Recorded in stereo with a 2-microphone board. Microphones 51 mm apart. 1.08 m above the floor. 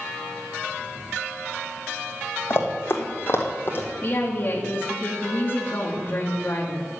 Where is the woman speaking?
40° left (ahead or behind), 2 m.